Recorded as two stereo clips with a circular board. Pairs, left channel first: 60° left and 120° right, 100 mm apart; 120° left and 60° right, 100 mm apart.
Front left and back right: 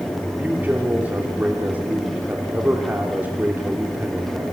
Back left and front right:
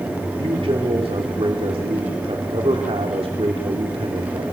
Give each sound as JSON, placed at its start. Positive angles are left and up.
{"t": 0.4, "sound": "a man speaking", "azimuth_deg": -45, "distance_m": 3.0}